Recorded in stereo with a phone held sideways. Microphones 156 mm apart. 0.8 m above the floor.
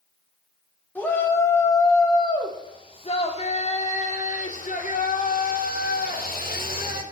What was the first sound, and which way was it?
A shout, 10° left (ahead or behind).